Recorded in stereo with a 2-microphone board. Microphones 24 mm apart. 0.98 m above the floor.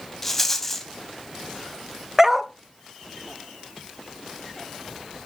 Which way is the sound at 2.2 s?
10° right (ahead or behind).